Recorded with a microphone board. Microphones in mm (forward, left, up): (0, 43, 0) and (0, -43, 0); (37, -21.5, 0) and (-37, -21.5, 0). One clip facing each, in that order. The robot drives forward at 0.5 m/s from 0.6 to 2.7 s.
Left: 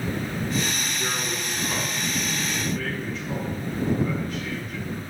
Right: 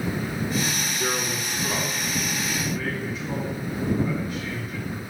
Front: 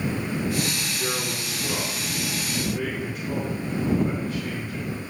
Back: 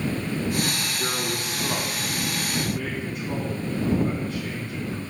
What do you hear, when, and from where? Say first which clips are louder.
1.0 s a man speaking: right 2 dB, back 1 dB; 175° right, 2 m